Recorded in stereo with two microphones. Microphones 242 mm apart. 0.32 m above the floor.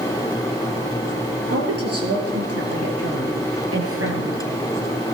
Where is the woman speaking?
80° right, 7 m; by 4.4 s 60° right (ahead or behind), 6.5 m.